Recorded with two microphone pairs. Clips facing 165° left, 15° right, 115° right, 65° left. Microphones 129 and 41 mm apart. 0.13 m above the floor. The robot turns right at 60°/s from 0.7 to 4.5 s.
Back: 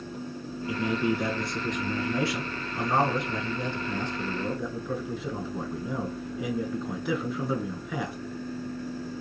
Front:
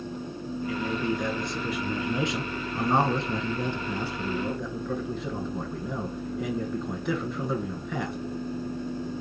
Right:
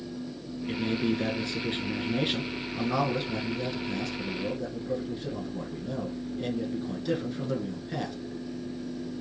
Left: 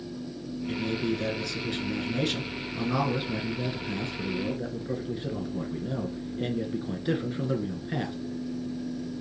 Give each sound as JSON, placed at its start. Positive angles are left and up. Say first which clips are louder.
{"t": 0.7, "sound": "a man speaking", "louder": "back 3 dB, right 1 dB", "azimuth_deg": -150, "distance_m": 1.2}